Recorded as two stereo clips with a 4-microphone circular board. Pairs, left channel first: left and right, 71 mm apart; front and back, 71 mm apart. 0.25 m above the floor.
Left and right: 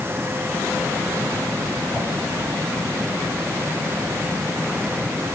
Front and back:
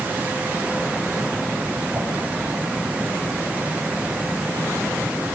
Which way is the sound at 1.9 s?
135° left.